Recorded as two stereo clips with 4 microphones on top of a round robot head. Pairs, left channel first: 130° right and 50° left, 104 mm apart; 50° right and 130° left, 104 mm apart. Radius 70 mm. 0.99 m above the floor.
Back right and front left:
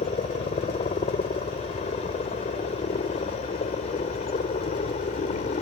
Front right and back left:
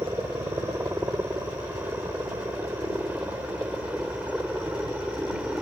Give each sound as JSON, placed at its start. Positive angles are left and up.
{"t": 0.0, "sound": "a helicopter", "azimuth_deg": -160}